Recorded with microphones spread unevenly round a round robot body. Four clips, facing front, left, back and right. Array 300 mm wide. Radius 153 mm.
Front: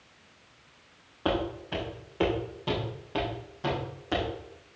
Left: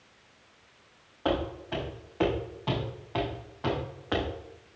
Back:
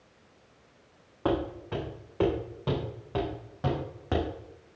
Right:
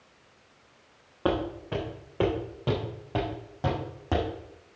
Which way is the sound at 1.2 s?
105° right.